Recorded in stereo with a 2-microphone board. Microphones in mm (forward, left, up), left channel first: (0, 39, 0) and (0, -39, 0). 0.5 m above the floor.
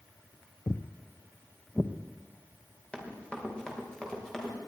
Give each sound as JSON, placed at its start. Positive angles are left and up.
{"t": 0.7, "sound": "footsteps", "side_deg": 45, "distance_m": 0.6}
{"t": 2.9, "sound": "running footsteps", "side_deg": 15, "distance_m": 4.5}